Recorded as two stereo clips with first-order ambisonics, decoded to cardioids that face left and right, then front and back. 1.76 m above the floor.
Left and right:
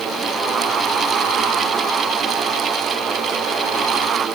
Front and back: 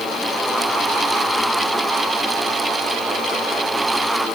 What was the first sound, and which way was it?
Only background noise.